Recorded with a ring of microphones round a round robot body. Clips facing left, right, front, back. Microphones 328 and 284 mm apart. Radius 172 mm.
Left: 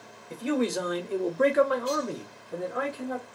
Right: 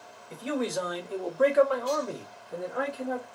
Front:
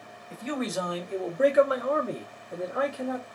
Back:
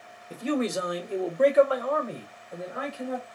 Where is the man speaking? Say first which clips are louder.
Left 3 dB, back 4 dB; 140° left, 0.9 m; by 3.2 s straight ahead, 1.2 m.